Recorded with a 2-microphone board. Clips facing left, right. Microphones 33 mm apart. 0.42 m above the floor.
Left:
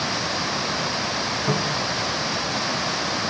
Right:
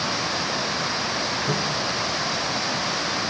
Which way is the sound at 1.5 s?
45° left (ahead or behind).